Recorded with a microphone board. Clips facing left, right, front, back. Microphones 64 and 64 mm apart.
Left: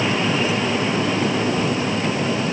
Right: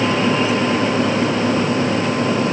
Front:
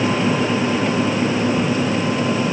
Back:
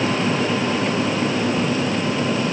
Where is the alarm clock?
I don't hear an alarm clock.